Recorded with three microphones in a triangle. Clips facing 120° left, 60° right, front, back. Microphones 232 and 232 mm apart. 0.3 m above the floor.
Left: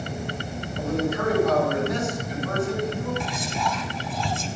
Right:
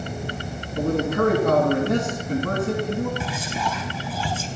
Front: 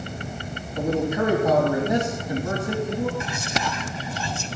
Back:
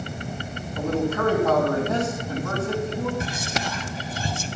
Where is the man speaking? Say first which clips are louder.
Right 4 dB, front 1 dB; 70° right, 3 m.